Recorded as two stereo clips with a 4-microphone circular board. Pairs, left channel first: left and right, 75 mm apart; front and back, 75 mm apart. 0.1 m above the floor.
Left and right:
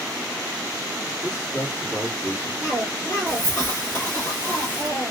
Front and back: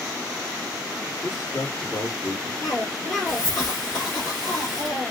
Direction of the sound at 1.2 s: 35° left.